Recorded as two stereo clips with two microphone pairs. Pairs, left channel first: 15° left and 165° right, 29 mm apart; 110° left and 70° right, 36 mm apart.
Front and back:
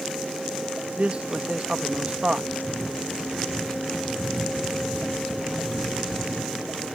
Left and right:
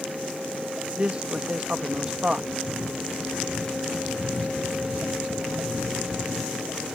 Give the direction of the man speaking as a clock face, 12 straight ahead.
4 o'clock.